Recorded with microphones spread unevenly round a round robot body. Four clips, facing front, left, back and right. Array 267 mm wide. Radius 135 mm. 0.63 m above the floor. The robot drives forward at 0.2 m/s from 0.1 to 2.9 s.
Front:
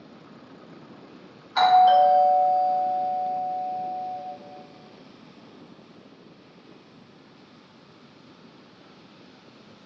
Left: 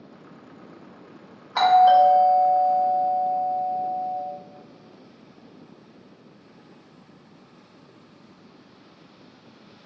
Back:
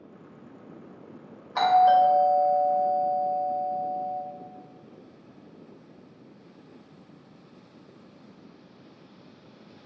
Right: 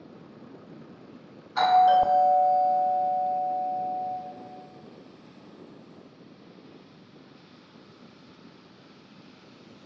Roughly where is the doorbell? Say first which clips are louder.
Left 4 dB, front 2 dB; left.